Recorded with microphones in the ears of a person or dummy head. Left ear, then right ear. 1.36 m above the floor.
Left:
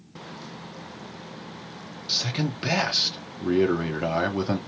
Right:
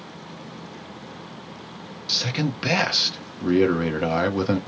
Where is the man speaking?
10° right (ahead or behind), 0.9 m.